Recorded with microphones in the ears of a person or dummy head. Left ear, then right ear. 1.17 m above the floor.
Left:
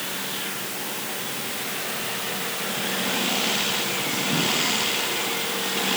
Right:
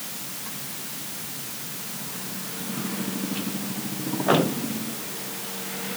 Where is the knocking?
No knocking in this recording.